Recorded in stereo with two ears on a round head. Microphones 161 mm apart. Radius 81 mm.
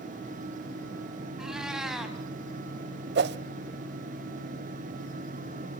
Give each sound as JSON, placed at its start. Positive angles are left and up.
{"t": 1.4, "sound": "a cat meowing", "side_deg": -5, "distance_m": 3.0}
{"t": 3.1, "sound": "a whoosh", "side_deg": -65, "distance_m": 0.8}